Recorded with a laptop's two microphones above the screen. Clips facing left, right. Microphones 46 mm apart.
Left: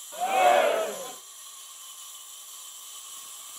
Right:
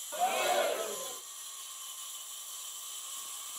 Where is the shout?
5° right (ahead or behind), 0.5 m; by 1.2 s 65° left (ahead or behind), 1.4 m.